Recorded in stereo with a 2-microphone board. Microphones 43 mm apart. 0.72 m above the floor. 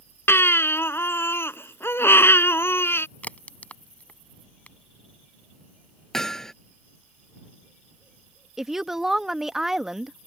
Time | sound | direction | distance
0.3 | a baby crying | 70° left (ahead or behind) | ?
3.2 | a crack | 35° left (ahead or behind) | ?
6.1 | hammering | 10° left (ahead or behind) | ?
8.6 | a woman speaking | 10° right (ahead or behind) | ?